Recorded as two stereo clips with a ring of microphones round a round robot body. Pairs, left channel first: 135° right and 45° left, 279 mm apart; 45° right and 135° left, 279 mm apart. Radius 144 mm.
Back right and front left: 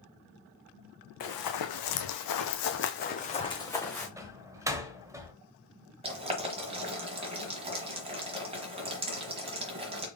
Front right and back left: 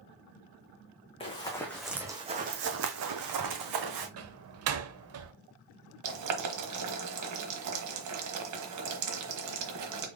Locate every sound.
1.2 s running footsteps: 115° right, 1.2 m; by 4.1 s 140° left, 1.4 m
4.2 s a door slam: 120° left, 0.8 m
6.0 s boiling: 115° left, 1.2 m